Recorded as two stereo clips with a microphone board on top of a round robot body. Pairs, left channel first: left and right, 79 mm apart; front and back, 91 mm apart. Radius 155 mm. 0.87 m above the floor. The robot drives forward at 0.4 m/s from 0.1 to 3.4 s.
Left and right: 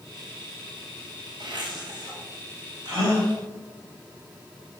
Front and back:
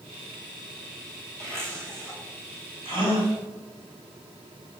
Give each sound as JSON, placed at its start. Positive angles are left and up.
{"t": 1.4, "sound": "a zipper", "azimuth_deg": -120, "distance_m": 5.0}
{"t": 2.9, "sound": "a gasp", "azimuth_deg": -145, "distance_m": 5.5}